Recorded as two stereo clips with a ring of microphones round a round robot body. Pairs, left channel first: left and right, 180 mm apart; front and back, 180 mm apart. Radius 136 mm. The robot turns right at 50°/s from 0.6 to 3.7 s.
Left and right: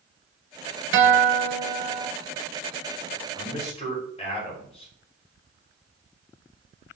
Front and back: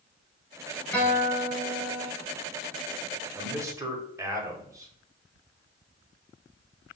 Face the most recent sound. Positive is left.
turn(degrees=120)